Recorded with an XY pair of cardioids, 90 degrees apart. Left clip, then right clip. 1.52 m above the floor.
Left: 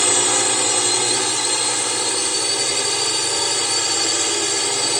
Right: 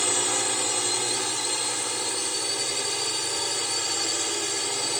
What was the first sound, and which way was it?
A drone, 55° left.